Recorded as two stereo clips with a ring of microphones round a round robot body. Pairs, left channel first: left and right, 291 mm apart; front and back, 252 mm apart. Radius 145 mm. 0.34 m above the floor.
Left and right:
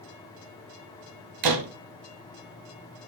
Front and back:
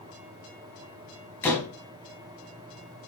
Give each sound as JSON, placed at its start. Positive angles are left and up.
{"t": 1.4, "sound": "a door slam", "azimuth_deg": -85, "distance_m": 1.3}